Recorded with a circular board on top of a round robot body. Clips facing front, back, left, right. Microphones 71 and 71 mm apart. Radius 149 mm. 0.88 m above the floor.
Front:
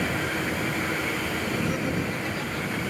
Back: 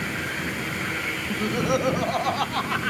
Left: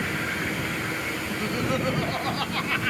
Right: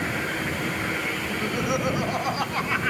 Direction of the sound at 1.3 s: 170° right.